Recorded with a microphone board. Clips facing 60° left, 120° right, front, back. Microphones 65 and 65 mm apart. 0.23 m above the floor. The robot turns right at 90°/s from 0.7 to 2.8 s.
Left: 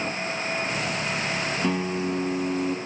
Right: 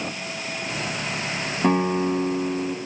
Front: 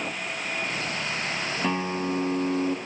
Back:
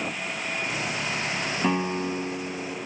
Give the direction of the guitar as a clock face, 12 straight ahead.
3 o'clock.